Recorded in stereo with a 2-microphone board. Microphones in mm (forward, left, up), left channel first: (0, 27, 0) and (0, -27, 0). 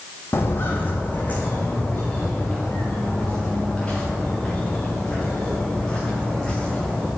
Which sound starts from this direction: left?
Footsteps, at 0.3 s.